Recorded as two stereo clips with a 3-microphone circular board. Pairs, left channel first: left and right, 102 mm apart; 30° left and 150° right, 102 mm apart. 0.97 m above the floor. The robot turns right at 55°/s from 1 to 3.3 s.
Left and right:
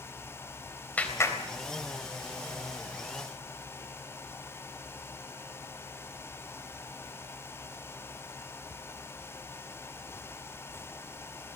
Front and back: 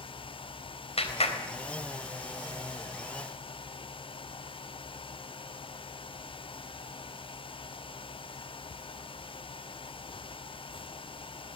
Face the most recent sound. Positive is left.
turn(degrees=140)